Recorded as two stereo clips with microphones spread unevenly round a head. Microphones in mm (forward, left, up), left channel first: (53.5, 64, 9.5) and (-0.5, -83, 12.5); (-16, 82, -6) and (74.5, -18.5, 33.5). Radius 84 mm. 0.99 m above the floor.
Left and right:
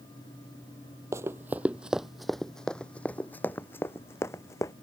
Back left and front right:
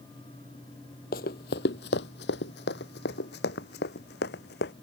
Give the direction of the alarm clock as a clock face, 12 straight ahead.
I don't hear an alarm clock.